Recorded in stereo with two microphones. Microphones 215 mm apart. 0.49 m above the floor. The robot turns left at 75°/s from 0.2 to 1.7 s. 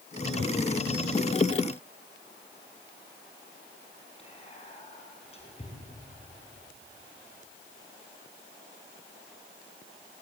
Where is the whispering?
30° left (ahead or behind), 6 m.